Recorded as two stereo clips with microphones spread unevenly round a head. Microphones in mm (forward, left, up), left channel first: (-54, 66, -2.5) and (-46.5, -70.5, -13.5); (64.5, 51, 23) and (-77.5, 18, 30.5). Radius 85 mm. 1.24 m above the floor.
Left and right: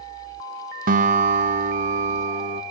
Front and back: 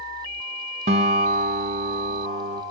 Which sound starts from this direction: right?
A guitar, at 0.9 s.